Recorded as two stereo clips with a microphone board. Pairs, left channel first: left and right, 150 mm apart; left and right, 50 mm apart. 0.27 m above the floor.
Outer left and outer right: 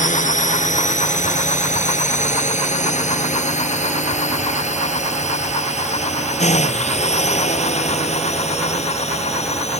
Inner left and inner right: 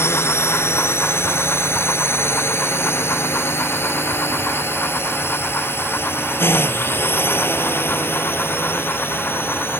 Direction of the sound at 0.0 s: 55° left (ahead or behind).